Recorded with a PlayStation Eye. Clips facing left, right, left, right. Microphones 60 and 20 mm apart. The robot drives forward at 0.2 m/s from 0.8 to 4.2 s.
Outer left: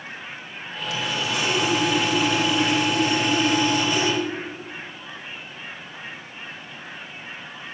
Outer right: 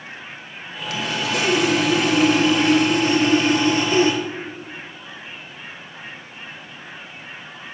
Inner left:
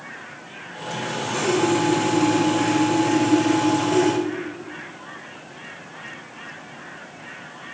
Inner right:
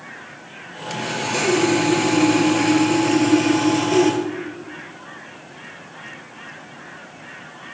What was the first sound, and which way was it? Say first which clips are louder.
Sawing: outer right 3 dB, inner right 3 dB; 60° right (ahead or behind).